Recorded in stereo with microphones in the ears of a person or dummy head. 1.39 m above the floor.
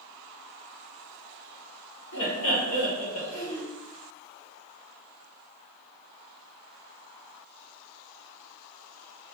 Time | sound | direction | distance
2.1 | laughter | 80° left | 1.9 m